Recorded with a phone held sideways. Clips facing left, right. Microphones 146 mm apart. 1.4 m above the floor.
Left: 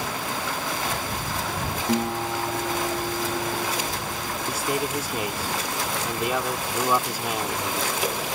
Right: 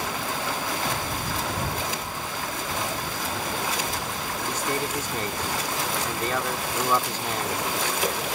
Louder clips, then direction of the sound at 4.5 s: Left 2 dB; 10° left (ahead or behind).